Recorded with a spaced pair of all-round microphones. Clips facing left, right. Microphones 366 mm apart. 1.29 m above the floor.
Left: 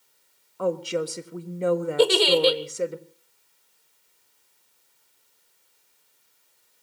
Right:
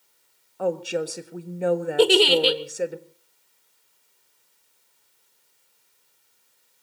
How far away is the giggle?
About 1.8 m.